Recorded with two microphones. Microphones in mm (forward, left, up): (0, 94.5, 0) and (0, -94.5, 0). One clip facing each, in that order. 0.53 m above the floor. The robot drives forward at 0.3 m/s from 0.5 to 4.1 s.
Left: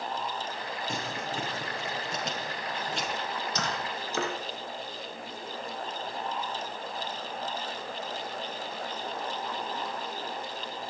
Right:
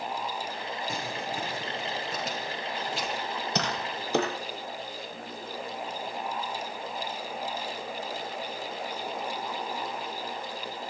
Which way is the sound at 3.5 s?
70° right (ahead or behind).